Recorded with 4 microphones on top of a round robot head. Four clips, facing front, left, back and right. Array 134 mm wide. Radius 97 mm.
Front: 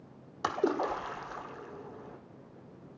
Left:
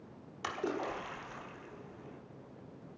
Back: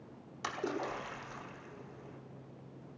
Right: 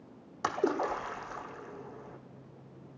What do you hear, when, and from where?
0.4 s a splash: 45° right, 1.3 m